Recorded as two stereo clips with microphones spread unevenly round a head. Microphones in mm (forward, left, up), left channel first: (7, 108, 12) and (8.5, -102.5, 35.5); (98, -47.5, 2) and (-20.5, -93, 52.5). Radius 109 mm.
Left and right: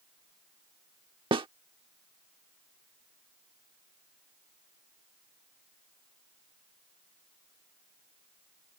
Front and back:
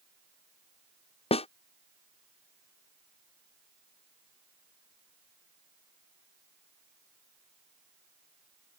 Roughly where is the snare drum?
Ahead right.